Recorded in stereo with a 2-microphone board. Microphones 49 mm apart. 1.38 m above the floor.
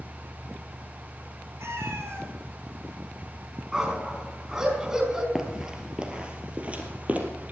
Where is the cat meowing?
65° right (ahead or behind), 3 m.